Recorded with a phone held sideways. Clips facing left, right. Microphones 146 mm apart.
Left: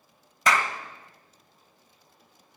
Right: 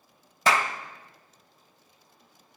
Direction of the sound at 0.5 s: 30° right (ahead or behind).